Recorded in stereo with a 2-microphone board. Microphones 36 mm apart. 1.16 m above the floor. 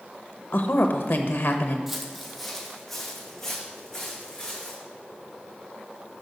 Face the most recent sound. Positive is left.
turn(degrees=15)  # may be behind; listen again after turning